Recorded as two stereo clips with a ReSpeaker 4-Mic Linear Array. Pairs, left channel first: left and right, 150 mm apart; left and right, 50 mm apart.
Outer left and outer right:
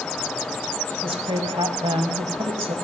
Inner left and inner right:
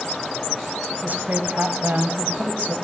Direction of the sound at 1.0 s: 40° right (ahead or behind).